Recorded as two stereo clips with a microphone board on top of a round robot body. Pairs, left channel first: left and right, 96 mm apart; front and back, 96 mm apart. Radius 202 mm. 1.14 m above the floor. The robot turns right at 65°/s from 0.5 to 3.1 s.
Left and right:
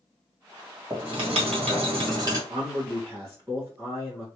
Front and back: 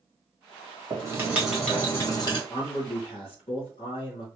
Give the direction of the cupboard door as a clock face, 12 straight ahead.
No cupboard door in this recording.